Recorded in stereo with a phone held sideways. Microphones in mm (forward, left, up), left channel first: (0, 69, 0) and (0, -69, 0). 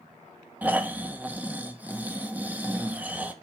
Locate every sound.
0.6 s snoring: 10° right (ahead or behind), 0.6 m